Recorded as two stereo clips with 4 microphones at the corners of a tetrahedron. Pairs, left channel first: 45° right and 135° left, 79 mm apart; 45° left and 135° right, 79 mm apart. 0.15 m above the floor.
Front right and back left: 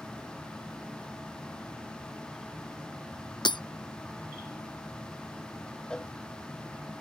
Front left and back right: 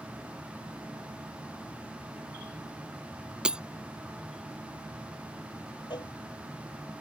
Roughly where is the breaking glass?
Ahead right.